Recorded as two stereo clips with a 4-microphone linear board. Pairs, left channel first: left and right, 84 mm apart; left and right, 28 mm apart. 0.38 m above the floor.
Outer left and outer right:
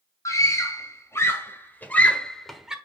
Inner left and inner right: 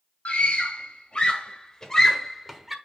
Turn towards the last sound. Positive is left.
turn(degrees=-5)  # may be behind; listen again after turning